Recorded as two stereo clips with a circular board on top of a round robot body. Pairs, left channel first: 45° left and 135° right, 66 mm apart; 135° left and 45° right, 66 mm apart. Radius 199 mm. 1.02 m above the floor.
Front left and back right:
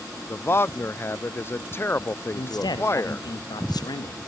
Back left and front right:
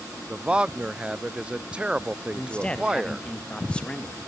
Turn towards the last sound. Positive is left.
turn(degrees=60)